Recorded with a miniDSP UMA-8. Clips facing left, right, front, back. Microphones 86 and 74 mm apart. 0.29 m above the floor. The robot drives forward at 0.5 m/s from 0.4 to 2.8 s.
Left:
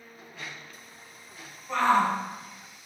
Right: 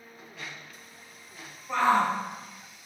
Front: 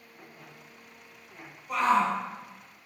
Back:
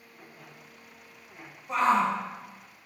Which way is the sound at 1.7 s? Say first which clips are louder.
Left 1 dB, back 1 dB; 165° right.